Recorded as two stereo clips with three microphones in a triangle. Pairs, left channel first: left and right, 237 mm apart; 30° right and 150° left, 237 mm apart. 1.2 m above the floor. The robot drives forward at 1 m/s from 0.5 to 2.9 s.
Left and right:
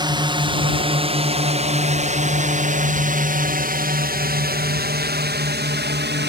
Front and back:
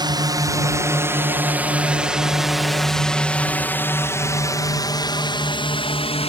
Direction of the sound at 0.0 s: 150° right.